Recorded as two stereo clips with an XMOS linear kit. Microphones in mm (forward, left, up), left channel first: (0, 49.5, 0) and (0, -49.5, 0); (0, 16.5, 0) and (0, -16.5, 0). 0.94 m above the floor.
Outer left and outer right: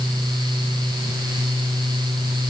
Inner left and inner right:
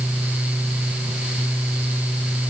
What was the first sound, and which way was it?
Only background noise.